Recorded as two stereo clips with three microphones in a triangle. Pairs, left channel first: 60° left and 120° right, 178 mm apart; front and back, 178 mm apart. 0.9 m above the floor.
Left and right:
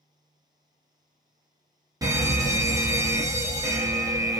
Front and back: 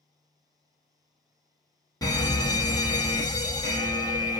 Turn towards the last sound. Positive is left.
turn(degrees=-60)